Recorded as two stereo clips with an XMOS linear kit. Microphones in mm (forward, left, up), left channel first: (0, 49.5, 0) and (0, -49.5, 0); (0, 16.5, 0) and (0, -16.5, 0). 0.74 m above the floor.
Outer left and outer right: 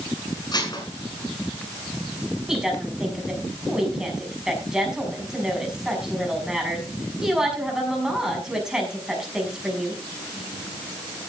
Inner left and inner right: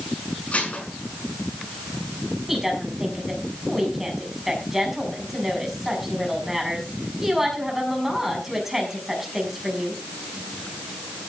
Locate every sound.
0.5 s dishes clattering: 45° left (ahead or behind), 5.5 m
2.5 s a woman speaking: 5° right (ahead or behind), 6 m